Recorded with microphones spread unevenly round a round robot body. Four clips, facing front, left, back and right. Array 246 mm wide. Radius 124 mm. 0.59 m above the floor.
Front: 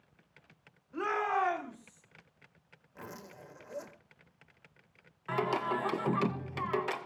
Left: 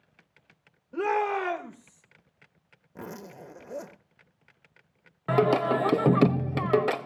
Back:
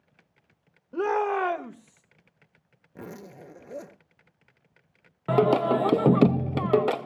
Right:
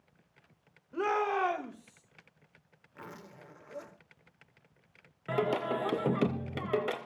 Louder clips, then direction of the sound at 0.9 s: Left 4 dB, back 6 dB; 155° left.